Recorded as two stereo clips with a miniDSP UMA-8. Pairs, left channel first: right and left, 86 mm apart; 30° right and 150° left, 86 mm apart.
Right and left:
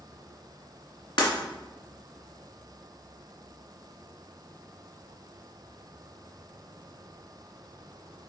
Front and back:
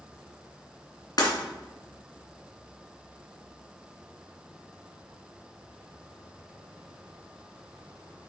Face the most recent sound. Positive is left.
turn(degrees=-70)